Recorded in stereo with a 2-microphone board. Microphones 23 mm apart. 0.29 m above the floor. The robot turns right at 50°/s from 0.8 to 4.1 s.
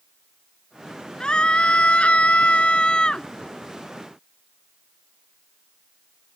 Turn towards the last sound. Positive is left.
turn(degrees=-175)